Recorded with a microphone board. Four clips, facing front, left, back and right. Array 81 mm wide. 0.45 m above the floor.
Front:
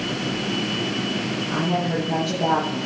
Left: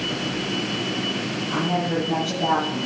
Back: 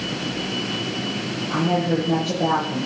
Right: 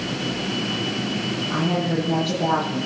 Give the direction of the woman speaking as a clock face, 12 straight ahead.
6 o'clock.